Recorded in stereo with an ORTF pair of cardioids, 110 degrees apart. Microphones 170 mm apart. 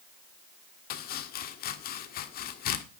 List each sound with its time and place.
0.9 s chopping: 65° left, 1.7 m